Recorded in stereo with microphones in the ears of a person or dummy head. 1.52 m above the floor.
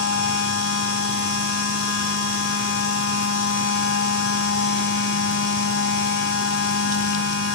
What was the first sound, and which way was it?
A machine running, 75° left (ahead or behind).